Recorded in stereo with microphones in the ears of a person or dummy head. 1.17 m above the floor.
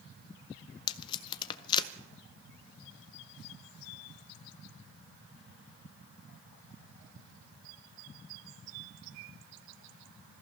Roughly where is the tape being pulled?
Left.